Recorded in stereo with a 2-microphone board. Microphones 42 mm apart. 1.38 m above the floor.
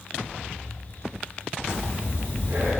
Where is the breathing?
55° right (ahead or behind), 1.0 m.